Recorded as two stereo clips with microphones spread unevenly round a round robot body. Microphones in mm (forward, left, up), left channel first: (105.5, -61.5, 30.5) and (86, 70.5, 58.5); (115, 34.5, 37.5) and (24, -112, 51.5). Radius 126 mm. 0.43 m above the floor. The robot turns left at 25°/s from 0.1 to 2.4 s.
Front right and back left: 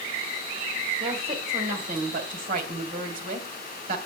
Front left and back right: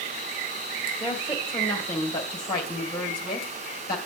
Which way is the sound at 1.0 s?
155° left.